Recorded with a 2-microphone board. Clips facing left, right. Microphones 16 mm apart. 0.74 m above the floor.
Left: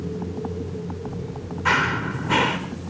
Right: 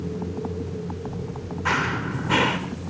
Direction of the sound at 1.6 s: 5° left (ahead or behind).